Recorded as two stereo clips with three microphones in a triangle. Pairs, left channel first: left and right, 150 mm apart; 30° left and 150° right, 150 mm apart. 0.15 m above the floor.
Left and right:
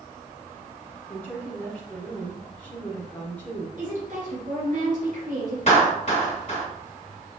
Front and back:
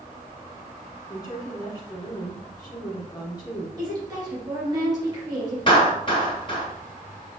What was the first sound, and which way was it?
A woman speaking, 25° left.